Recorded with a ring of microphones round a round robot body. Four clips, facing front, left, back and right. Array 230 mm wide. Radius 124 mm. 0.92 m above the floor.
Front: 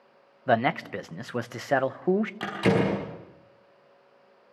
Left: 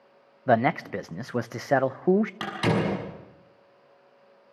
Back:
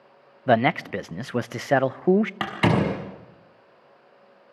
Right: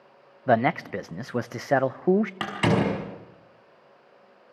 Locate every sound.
0.5 s a man speaking: straight behind, 0.6 m
2.4 s a door slam: 165° right, 5 m